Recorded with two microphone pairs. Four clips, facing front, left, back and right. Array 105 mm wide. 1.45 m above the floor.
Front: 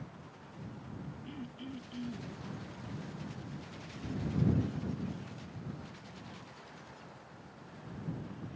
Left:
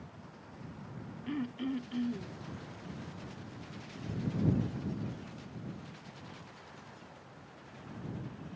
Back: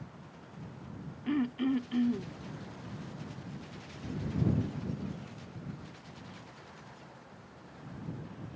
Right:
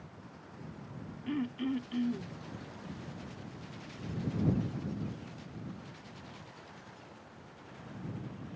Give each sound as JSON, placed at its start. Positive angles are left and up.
{"t": 1.3, "sound": "throat clearing", "azimuth_deg": -175}